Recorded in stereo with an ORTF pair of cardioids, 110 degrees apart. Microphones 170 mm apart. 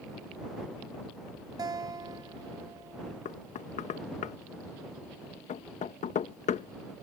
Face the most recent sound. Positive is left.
turn(degrees=45)